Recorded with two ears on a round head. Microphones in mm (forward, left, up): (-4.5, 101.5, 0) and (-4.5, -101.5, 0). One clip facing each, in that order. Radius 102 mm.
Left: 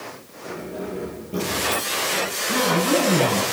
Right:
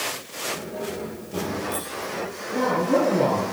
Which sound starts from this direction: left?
A man speaking, at 2.5 s.